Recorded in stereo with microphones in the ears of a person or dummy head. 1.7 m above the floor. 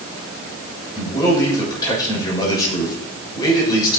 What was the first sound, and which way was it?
A man speaking, 20° left (ahead or behind).